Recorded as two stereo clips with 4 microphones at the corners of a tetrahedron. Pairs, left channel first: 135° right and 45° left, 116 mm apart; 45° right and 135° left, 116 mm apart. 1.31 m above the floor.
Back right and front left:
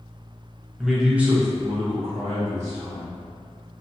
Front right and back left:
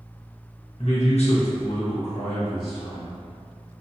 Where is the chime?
I don't hear a chime.